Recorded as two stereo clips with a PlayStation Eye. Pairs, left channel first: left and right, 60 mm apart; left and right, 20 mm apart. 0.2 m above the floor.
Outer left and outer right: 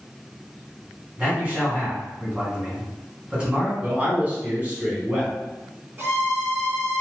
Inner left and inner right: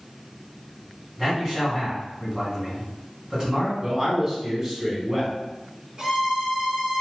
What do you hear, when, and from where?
1.2 s a man speaking: 20° right (ahead or behind), 1.8 m
3.8 s a man speaking: 25° right (ahead or behind), 1.3 m
6.0 s a violin: 40° right (ahead or behind), 0.9 m